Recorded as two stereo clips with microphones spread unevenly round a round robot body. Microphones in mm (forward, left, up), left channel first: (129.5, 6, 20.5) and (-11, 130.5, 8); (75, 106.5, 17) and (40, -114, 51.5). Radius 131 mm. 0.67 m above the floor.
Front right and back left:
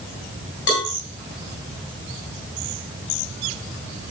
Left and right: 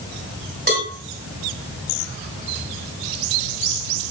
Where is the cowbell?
55° right, 7.5 m.